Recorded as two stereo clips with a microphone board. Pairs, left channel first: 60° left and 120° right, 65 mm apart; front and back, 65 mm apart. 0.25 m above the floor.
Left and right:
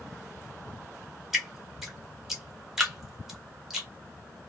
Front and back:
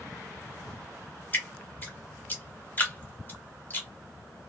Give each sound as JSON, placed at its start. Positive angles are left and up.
{"t": 1.3, "sound": "dripping", "azimuth_deg": -35, "distance_m": 1.0}